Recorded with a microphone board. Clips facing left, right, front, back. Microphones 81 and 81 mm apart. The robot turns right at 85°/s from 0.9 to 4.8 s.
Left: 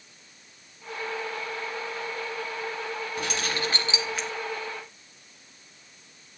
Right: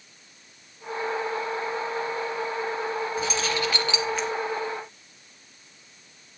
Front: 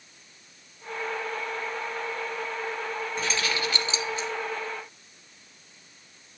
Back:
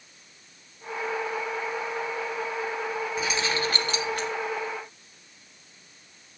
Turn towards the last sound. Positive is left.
turn(degrees=-130)